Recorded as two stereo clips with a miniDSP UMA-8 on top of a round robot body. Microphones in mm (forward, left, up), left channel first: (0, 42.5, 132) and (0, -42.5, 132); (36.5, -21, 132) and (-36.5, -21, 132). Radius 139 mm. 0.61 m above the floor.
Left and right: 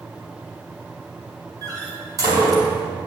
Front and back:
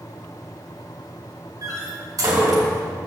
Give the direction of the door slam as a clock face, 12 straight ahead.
5 o'clock.